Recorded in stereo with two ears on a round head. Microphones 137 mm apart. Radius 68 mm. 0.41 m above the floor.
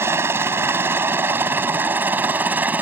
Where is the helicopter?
15° right (ahead or behind); by 2.8 s 10° right (ahead or behind).